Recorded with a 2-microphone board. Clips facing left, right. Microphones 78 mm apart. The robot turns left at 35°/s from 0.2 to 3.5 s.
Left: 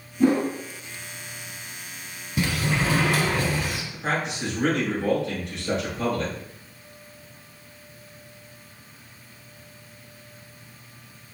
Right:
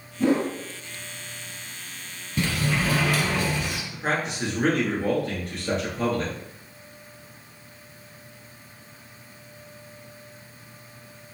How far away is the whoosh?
About 1.3 m.